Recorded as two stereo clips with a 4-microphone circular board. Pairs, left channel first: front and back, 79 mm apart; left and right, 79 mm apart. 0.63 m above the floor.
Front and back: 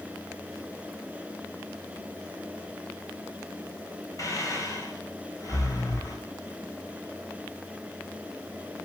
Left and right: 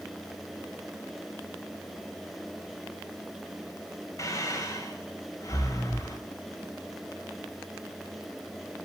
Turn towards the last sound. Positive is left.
turn(degrees=45)